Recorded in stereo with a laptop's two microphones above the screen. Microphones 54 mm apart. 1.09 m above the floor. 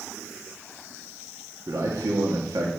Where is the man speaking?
80° right, 1.7 m.